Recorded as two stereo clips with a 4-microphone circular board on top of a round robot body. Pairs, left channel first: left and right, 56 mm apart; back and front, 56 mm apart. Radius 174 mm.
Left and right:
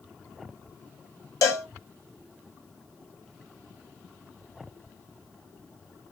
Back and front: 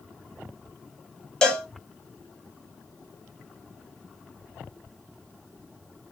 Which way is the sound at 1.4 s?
105° left.